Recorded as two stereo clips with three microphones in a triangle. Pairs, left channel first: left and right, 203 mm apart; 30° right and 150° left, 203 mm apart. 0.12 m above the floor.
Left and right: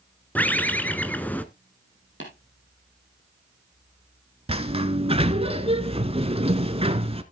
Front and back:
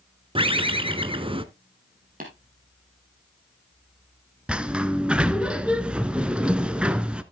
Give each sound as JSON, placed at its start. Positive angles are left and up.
{"t": 0.3, "sound": "a bird", "azimuth_deg": 160, "distance_m": 0.6}
{"t": 2.2, "sound": "tapping", "azimuth_deg": 105, "distance_m": 3.5}
{"t": 4.5, "sound": "a sliding door", "azimuth_deg": -130, "distance_m": 0.6}